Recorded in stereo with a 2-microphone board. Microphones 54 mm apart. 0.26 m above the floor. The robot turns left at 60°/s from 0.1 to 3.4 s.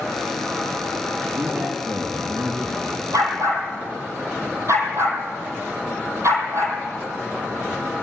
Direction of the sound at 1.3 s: 45° right.